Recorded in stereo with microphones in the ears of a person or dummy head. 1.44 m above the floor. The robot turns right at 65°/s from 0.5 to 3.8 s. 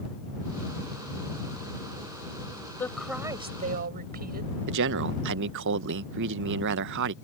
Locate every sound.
2.8 s a woman speaking: 165° left; by 4.6 s 130° right
4.7 s a man speaking: 65° right (ahead or behind)